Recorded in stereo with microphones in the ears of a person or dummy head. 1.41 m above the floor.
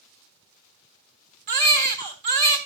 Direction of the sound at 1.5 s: 40° right (ahead or behind).